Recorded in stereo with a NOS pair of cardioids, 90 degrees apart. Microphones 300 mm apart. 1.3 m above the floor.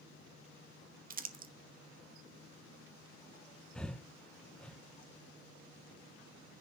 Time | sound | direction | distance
1.1 | crumpling | 30° right | 1.8 m
3.8 | breathing | 5° left | 0.8 m